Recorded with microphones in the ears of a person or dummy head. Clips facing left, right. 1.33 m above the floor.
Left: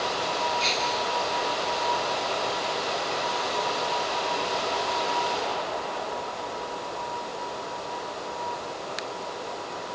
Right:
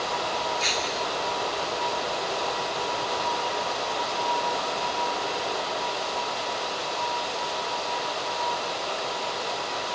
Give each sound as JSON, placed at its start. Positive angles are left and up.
{"t": 0.6, "sound": "breaking glass", "side_deg": -15}